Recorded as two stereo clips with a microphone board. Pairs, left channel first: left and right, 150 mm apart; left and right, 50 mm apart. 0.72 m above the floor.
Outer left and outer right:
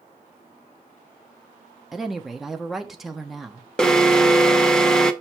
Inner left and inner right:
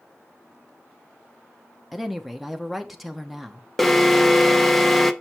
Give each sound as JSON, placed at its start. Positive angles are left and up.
{"t": 1.9, "sound": "a woman speaking", "side_deg": 0, "distance_m": 1.0}
{"t": 3.8, "sound": "an alarm", "side_deg": 5, "distance_m": 0.8}